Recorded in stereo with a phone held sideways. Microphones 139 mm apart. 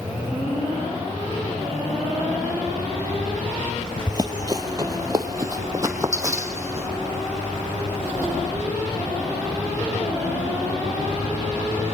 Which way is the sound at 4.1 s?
30° right (ahead or behind).